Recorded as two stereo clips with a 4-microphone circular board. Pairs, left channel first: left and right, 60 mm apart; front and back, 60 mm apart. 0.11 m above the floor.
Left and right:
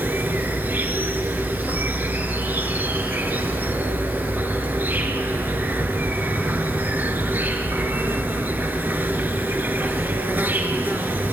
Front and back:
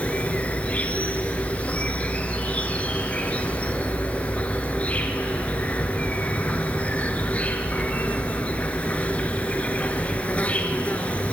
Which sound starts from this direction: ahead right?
An insect, at 0.0 s.